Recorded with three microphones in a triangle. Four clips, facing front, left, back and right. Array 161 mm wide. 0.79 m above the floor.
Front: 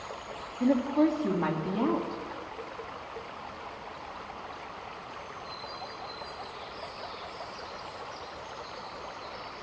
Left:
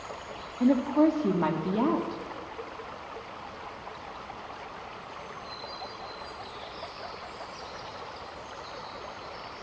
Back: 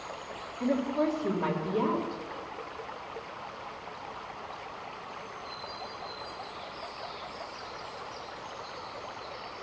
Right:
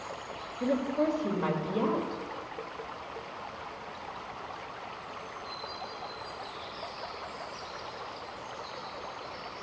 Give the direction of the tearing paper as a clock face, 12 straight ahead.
I don't hear tearing paper.